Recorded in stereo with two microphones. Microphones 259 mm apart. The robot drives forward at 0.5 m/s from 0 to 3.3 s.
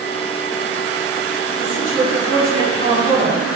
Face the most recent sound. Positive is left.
turn(degrees=-45)  # may be behind; listen again after turning